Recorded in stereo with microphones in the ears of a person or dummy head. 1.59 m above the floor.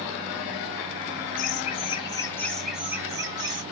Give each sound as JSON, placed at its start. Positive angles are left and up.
{"t": 1.4, "sound": "laughter", "side_deg": 50, "distance_m": 0.9}